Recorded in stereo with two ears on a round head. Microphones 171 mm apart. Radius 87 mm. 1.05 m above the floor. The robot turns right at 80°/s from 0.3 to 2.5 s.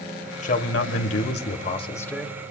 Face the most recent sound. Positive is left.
turn(degrees=-155)